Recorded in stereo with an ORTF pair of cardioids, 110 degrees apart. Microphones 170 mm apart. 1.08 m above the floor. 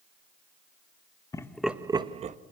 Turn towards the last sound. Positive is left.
turn(degrees=-45)